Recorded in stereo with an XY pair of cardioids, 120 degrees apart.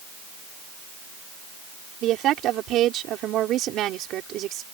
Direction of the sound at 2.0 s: 65° right.